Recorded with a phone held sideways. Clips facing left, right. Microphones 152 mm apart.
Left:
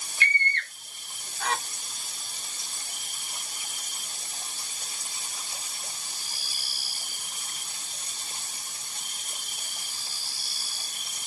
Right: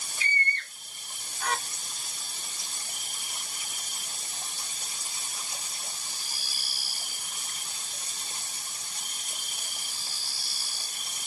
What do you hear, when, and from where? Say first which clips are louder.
0.2 s a scream: left 3 dB; 70° left (ahead or behind), 0.5 m; by 1.6 s 80° left, 1.6 m